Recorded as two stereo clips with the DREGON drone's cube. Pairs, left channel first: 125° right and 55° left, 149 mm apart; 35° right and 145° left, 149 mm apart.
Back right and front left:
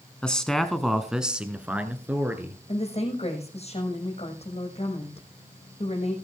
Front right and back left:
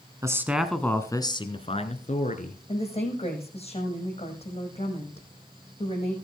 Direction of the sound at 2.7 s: 80° right.